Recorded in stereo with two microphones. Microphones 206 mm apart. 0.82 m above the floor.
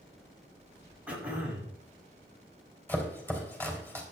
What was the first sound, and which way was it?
Throat clearing, 5° right (ahead or behind).